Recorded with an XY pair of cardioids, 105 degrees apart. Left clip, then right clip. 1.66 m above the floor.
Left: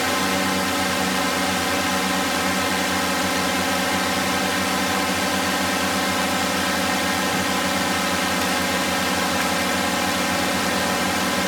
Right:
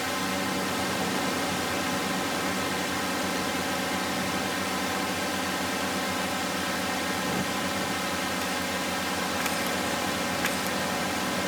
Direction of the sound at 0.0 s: 55° left.